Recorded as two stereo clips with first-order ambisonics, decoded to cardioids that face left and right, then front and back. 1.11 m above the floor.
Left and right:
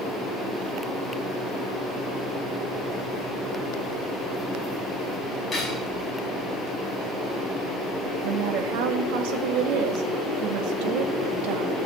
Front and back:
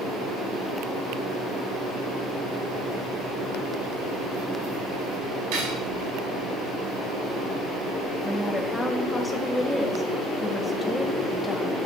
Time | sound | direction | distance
5.5 | cutlery clinking | 170° left | 6 m
8.2 | a woman speaking | 85° right | 1.4 m